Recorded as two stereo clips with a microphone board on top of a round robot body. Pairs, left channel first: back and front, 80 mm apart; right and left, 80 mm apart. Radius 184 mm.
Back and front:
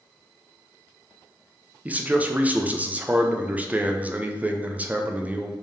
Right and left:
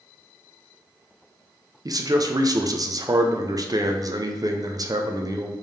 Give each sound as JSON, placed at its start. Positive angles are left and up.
{"t": 1.9, "sound": "a man speaking", "azimuth_deg": 70, "distance_m": 0.8}